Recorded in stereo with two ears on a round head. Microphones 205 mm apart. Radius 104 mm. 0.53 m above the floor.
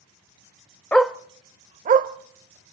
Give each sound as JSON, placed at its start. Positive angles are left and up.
{"t": 0.9, "sound": "a dog barking", "side_deg": 5, "distance_m": 0.5}